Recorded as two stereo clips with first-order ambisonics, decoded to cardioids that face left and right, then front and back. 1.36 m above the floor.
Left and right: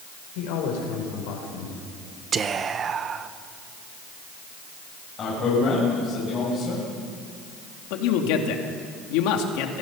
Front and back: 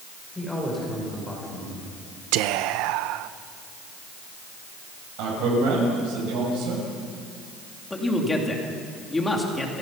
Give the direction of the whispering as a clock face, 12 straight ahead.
5 o'clock.